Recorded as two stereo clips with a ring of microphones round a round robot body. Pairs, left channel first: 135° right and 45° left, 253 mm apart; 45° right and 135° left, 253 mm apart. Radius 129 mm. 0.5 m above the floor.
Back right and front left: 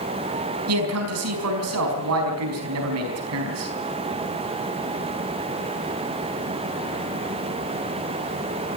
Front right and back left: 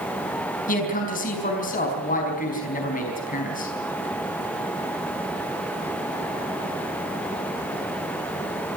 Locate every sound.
0.7 s a man speaking: 15° left, 4.5 m